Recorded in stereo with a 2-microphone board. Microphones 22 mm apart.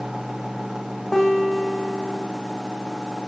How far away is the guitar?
About 10 m.